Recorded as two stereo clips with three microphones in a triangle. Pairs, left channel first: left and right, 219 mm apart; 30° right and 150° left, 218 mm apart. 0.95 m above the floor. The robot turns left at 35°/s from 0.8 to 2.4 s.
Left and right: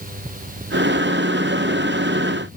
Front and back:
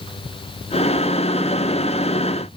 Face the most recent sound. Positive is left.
No sound to turn to.